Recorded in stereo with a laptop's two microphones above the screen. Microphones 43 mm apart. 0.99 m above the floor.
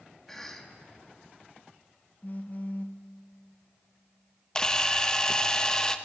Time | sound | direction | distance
0.3 | a cough | 10° left (ahead or behind) | 2 m
2.2 | a phone buzzing | 40° left (ahead or behind) | 0.8 m
4.5 | a camera shutter | 15° left (ahead or behind) | 1.1 m